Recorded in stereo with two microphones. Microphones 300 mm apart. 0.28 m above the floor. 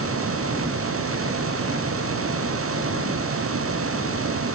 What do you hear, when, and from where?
Only background noise.